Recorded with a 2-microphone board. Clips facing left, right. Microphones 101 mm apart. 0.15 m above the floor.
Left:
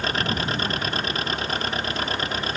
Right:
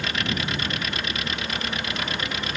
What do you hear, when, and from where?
0.0 s an engine running: 40° left (ahead or behind)